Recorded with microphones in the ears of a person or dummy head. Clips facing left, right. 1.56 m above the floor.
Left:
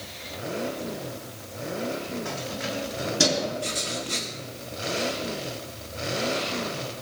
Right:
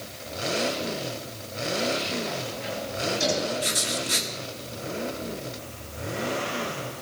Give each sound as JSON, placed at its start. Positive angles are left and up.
{"t": 2.2, "sound": "keys jangling", "side_deg": 75, "distance_m": 7.5}
{"t": 3.6, "sound": "writing", "side_deg": -15, "distance_m": 1.2}